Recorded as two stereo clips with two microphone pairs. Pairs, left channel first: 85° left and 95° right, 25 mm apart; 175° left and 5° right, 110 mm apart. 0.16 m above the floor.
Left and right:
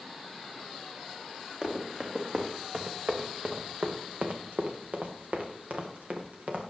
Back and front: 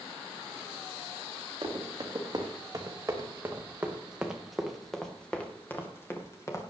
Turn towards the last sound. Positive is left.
turn(degrees=-130)